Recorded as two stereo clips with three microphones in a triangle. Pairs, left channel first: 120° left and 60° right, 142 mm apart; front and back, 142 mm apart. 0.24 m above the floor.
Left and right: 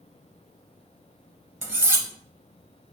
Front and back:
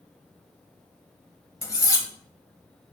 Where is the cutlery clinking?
15° right, 0.5 m.